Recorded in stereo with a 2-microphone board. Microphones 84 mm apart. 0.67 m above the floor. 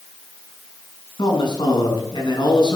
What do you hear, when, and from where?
1.2 s a man speaking: 70° left (ahead or behind), 6 m